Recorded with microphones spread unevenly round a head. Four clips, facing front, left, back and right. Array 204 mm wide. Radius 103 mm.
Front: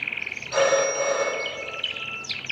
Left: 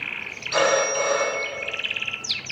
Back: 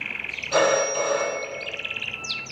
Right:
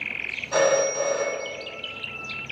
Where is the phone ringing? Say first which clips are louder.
Even, even; 145° right, 5 m.